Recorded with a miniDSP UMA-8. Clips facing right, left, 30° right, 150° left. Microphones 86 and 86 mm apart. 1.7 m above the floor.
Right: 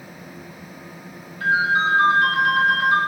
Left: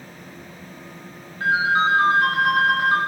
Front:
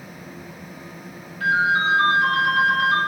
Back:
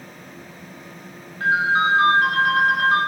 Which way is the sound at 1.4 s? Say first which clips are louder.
Even, back 1 dB; 120° left.